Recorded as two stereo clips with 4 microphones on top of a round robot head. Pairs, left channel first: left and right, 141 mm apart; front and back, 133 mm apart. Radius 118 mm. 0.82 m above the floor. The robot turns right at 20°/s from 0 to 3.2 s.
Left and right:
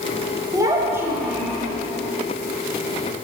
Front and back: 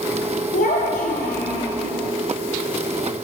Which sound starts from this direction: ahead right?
A child speaking, at 0.5 s.